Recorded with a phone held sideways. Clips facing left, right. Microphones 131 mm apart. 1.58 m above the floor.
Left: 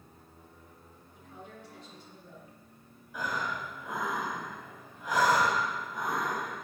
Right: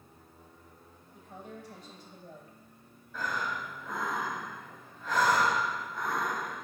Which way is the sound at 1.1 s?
45° right (ahead or behind).